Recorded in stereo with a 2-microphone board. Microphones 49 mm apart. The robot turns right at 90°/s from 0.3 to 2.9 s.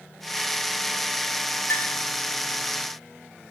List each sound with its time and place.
1.7 s a clink: 55° left (ahead or behind), 5 m; by 2.0 s 30° left (ahead or behind), 5 m